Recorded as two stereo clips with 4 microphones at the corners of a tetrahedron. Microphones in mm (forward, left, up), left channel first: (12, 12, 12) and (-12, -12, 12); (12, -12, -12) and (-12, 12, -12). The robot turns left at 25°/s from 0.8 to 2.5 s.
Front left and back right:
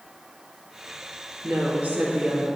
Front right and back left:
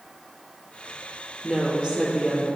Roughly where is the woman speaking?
Behind right.